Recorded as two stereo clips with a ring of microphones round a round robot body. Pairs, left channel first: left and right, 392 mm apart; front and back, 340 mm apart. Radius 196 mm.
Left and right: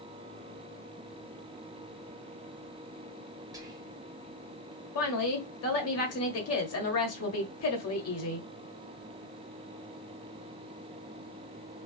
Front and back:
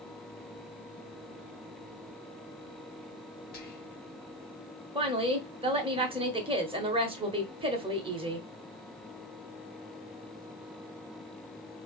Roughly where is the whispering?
Ahead.